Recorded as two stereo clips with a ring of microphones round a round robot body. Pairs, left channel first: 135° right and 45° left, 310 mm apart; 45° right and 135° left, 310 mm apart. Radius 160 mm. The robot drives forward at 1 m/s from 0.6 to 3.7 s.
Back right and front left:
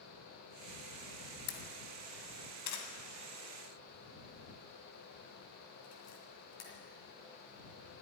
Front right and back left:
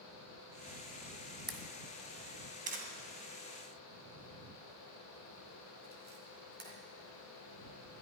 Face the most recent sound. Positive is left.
turn(degrees=-165)